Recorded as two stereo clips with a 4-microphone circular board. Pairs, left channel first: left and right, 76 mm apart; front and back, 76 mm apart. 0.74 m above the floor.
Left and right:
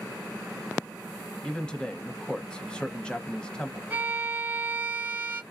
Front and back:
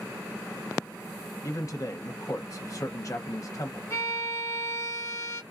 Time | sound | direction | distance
1.4 | a man speaking | 15° left | 0.8 m
3.9 | a violin | 35° right | 0.9 m